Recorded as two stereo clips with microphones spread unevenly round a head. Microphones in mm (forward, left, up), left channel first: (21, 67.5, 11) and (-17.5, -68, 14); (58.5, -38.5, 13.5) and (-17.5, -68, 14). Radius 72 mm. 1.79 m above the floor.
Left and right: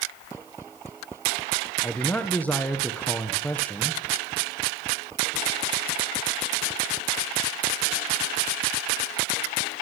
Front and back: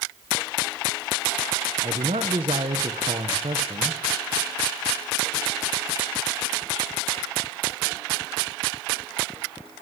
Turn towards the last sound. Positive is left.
turn(degrees=155)